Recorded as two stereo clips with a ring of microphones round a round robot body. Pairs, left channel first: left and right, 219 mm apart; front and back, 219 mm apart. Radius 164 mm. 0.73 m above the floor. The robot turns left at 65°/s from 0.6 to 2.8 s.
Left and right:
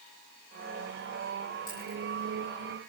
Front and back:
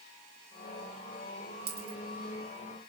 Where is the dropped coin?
165° left, 6 m; by 2.0 s 145° left, 6 m.